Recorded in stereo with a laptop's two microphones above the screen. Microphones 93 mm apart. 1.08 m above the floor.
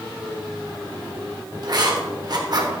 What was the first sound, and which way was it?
Writing, 50° right (ahead or behind).